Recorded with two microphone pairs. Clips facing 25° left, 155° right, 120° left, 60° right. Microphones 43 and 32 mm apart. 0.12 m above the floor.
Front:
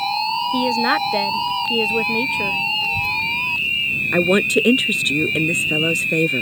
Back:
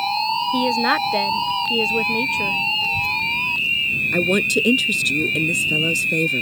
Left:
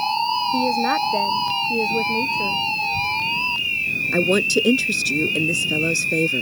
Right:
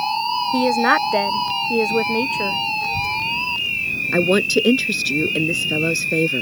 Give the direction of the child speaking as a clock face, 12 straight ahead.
2 o'clock.